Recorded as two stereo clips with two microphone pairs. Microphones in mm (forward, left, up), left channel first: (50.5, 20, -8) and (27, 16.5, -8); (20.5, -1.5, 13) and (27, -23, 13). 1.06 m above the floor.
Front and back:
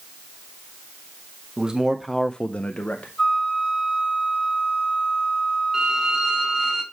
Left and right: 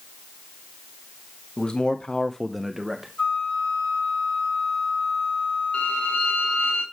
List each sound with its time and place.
1.6 s a man speaking: 145° left, 0.9 m; by 3.1 s straight ahead, 1.2 m
3.2 s a flute: 75° left, 6 m
5.7 s a violin: 120° left, 3.5 m